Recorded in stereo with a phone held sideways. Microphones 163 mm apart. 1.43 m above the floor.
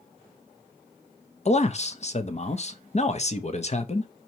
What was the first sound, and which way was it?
A man speaking, 45° left (ahead or behind).